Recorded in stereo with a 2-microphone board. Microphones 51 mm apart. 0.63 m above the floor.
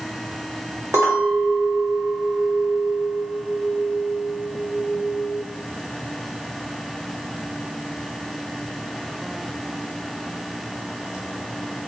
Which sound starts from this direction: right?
A clink, at 0.9 s.